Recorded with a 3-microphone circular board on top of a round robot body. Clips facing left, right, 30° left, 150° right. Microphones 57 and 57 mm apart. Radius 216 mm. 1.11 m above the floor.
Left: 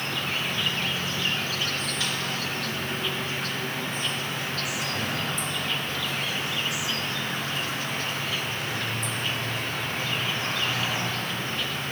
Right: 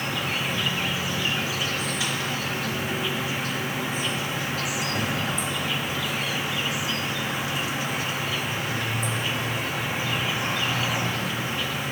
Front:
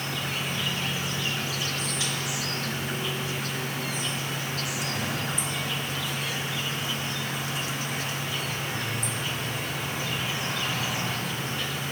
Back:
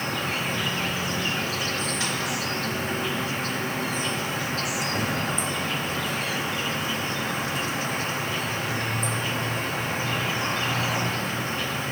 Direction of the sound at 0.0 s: 165° right.